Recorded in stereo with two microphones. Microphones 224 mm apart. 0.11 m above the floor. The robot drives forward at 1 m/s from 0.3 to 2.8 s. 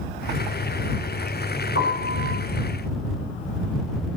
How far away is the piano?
About 6 m.